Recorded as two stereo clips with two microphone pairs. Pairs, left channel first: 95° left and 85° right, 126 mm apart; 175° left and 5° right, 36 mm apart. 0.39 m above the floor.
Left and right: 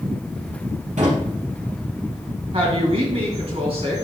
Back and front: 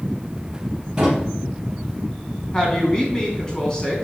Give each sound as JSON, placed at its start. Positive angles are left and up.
{"t": 1.0, "sound": "a drawer", "azimuth_deg": -75, "distance_m": 4.0}
{"t": 2.5, "sound": "a woman speaking", "azimuth_deg": -115, "distance_m": 3.0}